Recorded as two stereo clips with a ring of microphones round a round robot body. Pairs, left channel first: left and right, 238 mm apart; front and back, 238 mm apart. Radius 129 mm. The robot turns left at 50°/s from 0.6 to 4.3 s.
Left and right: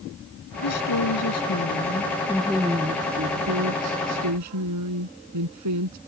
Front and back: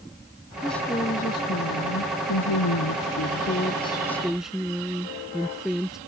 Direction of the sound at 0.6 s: 90° left.